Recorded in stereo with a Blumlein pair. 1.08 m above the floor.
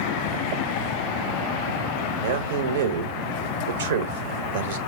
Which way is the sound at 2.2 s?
60° right.